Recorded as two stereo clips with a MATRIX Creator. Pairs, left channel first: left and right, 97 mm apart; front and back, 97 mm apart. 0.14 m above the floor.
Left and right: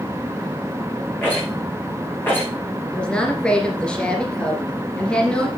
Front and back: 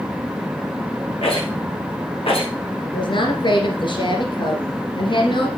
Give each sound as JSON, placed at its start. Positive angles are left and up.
{"t": 1.2, "sound": "a rattle", "azimuth_deg": 20, "distance_m": 5.5}
{"t": 2.9, "sound": "a woman speaking", "azimuth_deg": 10, "distance_m": 2.0}